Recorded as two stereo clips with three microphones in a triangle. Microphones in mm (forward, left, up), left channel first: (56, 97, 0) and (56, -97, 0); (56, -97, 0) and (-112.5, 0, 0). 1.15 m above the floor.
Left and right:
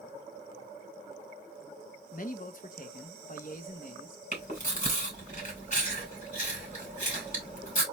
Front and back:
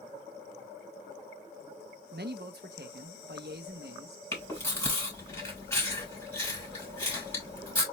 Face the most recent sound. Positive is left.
turn(degrees=45)